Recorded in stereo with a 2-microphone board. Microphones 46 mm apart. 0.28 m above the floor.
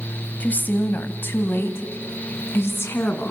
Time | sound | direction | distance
0.4 | a woman speaking | 40° left (ahead or behind) | 1.7 m